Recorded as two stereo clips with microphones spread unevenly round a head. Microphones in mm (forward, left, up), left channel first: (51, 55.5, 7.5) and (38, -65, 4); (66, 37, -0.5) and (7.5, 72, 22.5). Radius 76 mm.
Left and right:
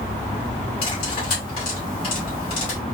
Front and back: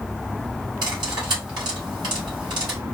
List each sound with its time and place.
0.8 s cutlery clinking: 140° left, 2.0 m